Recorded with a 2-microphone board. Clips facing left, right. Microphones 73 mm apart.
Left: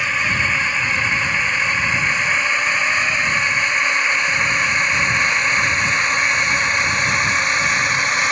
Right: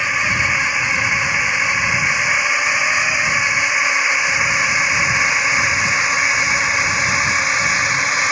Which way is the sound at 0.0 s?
10° right (ahead or behind).